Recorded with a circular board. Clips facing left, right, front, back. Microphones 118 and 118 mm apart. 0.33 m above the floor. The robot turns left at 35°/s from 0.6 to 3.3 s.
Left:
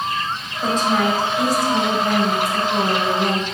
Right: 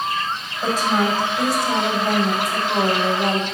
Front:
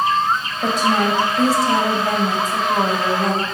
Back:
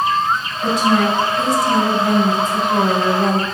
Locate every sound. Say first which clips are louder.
0.6 s a woman speaking: left 1 dB, back 2 dB; 5° right, 1.9 m; by 3.4 s 100° right, 1.9 m